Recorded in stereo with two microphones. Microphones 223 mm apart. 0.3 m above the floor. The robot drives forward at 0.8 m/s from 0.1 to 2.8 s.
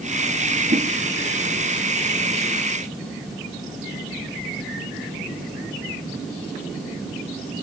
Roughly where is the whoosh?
Right.